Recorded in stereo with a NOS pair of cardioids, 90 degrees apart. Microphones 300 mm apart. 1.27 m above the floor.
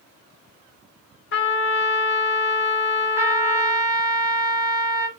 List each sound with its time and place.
1.3 s a trumpet: 40° left, 1.0 m
3.2 s a trumpet: 10° right, 0.9 m